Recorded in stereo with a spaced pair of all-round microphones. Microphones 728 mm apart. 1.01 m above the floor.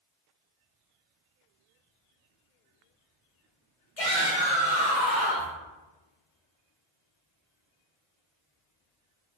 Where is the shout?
50° left (ahead or behind), 1.1 m.